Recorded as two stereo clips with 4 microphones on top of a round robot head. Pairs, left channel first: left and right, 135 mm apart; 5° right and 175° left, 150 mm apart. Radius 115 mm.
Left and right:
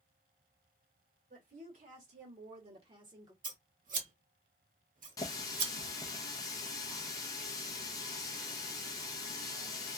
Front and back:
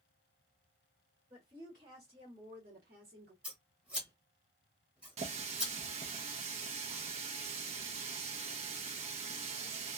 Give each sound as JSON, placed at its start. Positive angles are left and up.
{"t": 1.3, "sound": "a woman speaking", "azimuth_deg": -110, "distance_m": 1.5}
{"t": 3.4, "sound": "scissors", "azimuth_deg": -105, "distance_m": 1.2}
{"t": 5.2, "sound": "a running tap", "azimuth_deg": 145, "distance_m": 0.5}